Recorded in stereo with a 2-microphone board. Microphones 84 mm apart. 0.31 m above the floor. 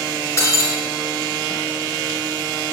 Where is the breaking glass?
35° left (ahead or behind), 3 m.